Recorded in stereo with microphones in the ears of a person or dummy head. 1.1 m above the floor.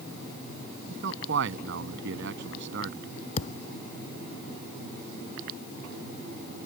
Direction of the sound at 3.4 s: 40° left (ahead or behind).